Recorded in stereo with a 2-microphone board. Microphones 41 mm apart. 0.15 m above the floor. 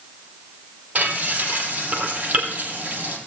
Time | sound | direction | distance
0.9 | frying | 35° right (ahead or behind) | 3 m